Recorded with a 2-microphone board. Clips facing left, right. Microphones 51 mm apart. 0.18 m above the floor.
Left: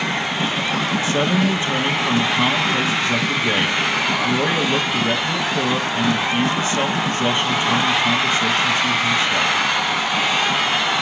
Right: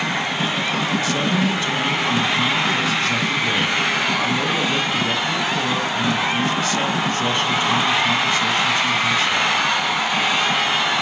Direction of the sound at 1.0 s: 25° left (ahead or behind).